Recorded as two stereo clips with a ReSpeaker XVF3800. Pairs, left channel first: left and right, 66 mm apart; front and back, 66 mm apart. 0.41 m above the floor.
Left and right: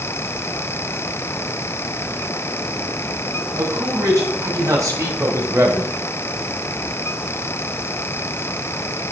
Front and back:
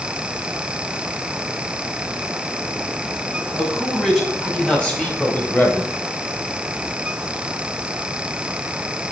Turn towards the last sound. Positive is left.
turn(degrees=-45)